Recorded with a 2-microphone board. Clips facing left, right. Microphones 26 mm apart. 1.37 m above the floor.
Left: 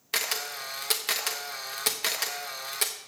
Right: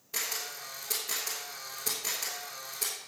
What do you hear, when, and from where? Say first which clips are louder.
0.1 s a camera shutter: left 6 dB; 70° left (ahead or behind), 1.1 m